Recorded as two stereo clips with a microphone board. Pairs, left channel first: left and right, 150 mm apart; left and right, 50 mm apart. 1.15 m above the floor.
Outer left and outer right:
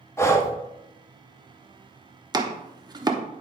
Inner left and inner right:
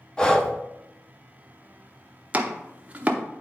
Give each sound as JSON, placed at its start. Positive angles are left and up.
{"t": 0.2, "sound": "breathing", "side_deg": 20, "distance_m": 0.9}
{"t": 2.3, "sound": "chopping", "side_deg": -30, "distance_m": 0.9}